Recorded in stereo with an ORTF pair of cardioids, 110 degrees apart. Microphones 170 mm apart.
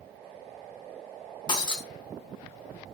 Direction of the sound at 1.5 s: 25° left.